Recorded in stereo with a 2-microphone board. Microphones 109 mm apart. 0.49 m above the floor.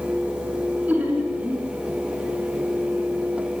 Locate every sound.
0.9 s laughter: 15° right (ahead or behind), 4.5 m